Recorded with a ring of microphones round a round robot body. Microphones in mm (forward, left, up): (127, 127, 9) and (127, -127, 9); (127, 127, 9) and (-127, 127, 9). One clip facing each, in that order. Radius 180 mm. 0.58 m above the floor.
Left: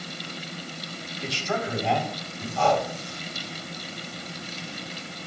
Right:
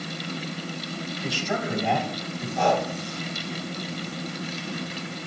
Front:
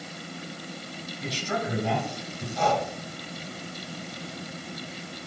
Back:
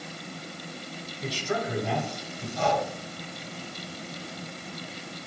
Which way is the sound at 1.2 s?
15° right.